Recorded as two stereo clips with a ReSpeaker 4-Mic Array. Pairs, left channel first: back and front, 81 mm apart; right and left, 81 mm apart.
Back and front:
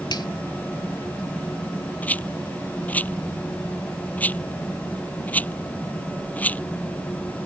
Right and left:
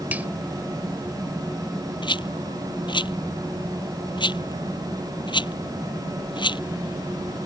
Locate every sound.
0.1 s a finger snap: 160° left
2.0 s a rattle: 110° right